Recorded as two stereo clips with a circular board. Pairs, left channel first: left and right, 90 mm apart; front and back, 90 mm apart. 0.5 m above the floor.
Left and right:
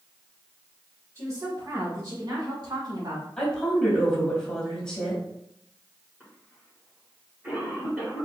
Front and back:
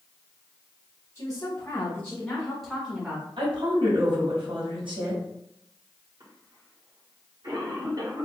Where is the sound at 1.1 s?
50° right, 1.6 m; by 3.3 s 110° right, 1.3 m.